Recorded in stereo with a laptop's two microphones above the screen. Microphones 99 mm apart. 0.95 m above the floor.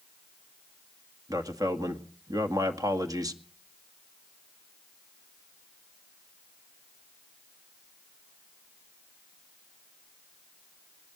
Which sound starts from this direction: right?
A man speaking, at 1.3 s.